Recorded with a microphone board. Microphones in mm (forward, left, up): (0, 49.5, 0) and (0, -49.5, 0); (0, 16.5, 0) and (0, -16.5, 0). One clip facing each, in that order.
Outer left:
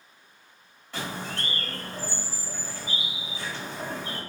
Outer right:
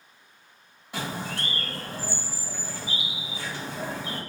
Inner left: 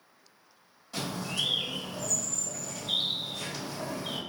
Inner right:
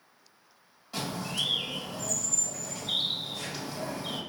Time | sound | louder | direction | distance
0.9 | a bird | outer right 1 dB, even | 10° right (ahead or behind) | 1.4 m